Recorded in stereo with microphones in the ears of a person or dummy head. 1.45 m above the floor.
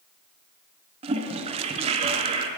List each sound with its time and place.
1.0 s a toilet flushing: 30° right (ahead or behind), 0.7 m